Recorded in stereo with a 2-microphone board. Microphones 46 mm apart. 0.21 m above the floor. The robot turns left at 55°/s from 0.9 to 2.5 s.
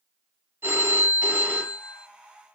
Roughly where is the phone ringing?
Right.